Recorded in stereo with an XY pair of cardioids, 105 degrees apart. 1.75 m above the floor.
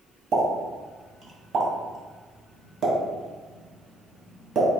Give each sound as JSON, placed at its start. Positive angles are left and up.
{"t": 0.3, "sound": "a pop", "azimuth_deg": -55, "distance_m": 1.6}